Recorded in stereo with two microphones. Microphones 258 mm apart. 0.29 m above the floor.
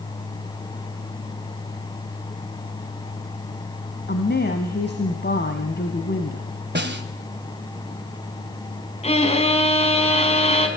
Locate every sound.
4.1 s a woman speaking: 45° left (ahead or behind), 1.8 m
6.8 s a snare drum: 45° right (ahead or behind), 1.6 m
9.0 s a violin: 25° left (ahead or behind), 3 m